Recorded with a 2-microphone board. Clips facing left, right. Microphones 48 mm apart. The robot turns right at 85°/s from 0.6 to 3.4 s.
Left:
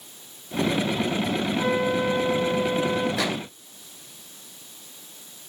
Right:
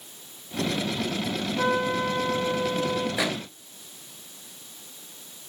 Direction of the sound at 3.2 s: 10° right (ahead or behind).